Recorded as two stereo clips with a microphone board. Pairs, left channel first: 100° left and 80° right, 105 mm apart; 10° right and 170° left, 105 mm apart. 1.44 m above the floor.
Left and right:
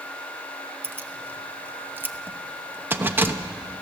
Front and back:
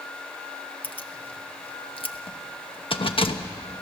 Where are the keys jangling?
10° right, 1.0 m.